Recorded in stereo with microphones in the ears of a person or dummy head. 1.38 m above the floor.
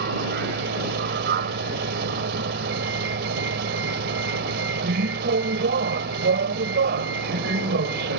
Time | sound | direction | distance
0.0 | a vehicle | 60° right (ahead or behind) | ?